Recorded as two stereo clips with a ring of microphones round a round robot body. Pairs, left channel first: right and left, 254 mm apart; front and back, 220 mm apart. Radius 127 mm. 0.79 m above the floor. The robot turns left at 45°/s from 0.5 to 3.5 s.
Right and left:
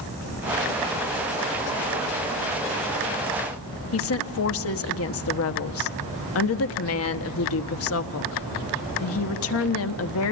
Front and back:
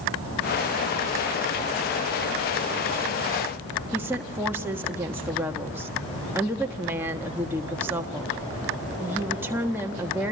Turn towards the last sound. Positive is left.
turn(degrees=-100)